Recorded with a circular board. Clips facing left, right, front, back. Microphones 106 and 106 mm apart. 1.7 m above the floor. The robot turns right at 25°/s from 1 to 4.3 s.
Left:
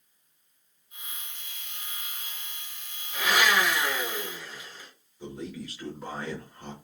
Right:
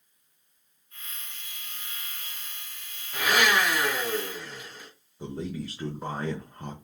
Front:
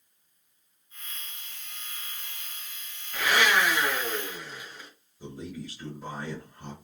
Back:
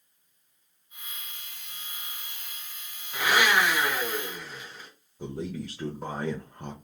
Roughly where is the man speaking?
Behind right.